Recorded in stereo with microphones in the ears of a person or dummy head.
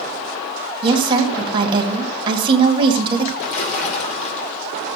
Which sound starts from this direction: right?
A woman speaking, at 0.8 s.